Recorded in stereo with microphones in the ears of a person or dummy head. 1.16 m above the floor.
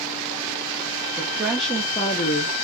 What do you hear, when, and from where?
1.2 s a woman speaking: 20° right (ahead or behind), 0.9 m; by 2.5 s 55° left (ahead or behind), 0.6 m